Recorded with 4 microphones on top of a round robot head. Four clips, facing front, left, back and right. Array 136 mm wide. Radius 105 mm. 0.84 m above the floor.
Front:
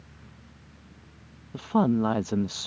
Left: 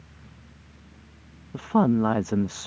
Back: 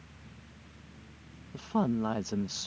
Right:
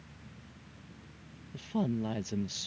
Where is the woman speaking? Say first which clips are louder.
Left 12 dB, front 6 dB; 65° left.